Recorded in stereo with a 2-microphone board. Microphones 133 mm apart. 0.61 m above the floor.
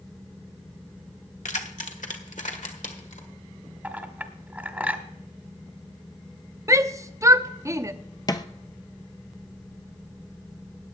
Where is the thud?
30° left (ahead or behind), 0.8 m.